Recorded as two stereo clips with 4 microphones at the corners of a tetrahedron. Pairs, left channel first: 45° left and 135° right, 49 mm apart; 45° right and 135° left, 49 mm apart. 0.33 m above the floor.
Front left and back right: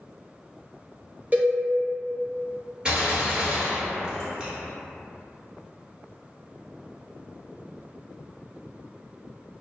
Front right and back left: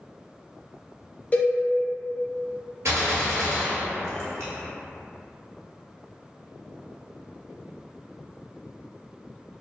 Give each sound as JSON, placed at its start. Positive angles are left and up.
{"t": 1.3, "sound": "a cowbell", "azimuth_deg": -90, "distance_m": 0.6}
{"t": 2.9, "sound": "a gunshot", "azimuth_deg": 155, "distance_m": 1.2}